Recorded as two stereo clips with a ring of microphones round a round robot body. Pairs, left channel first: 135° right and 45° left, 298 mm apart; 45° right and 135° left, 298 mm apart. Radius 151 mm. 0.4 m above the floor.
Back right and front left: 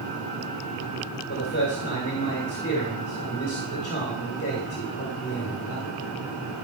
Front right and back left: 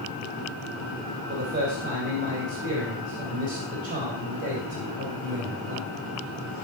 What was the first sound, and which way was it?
A man speaking, 175° left.